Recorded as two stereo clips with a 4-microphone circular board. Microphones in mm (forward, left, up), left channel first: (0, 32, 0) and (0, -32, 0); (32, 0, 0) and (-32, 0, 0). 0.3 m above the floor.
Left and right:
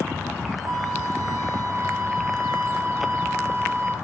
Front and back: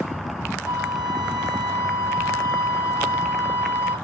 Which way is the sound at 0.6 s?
115° right.